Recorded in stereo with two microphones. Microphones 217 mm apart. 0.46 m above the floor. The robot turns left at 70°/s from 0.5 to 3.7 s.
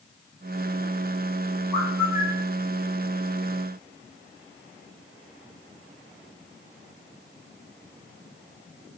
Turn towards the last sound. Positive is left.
turn(degrees=-125)